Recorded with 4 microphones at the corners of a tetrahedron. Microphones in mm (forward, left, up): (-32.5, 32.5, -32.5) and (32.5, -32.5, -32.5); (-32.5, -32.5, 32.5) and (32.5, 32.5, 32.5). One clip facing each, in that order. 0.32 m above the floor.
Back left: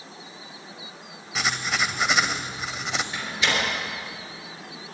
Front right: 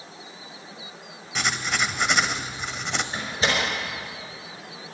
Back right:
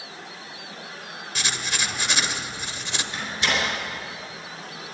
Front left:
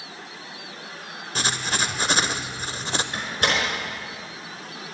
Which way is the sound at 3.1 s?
10° left.